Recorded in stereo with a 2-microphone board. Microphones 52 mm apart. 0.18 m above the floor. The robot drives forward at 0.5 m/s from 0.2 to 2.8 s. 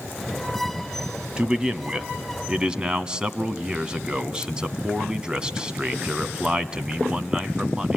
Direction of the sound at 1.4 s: 15° right (ahead or behind).